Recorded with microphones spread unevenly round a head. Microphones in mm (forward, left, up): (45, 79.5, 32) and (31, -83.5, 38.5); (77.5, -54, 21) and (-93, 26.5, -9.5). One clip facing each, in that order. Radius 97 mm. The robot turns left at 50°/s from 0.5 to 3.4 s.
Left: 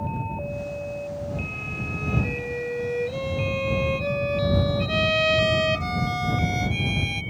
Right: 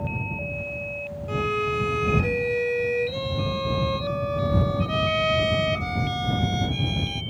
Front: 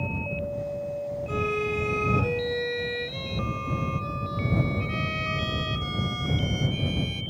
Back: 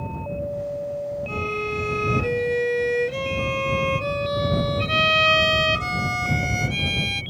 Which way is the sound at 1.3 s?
90° right.